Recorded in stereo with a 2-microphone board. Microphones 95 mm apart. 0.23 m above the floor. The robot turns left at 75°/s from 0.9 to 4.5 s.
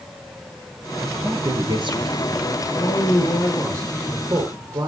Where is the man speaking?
100° left, 5.5 m; by 4.9 s 40° right, 5.5 m.